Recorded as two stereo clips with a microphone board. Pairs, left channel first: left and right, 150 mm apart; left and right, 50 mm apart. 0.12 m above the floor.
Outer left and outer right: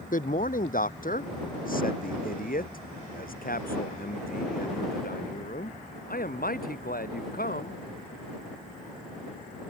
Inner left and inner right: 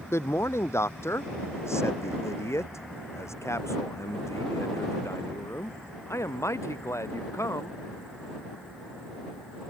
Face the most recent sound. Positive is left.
turn(degrees=80)